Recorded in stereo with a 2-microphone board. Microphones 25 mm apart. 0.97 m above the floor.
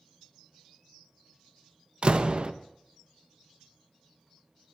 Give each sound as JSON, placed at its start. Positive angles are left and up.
{"t": 2.0, "sound": "a door slam", "side_deg": -45, "distance_m": 0.6}